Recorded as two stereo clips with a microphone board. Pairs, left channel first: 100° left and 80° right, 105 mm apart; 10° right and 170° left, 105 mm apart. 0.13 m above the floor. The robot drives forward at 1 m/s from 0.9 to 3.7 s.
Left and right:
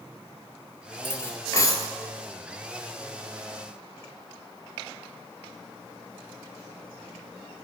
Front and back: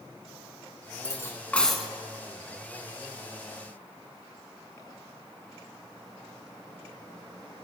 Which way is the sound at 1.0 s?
35° left.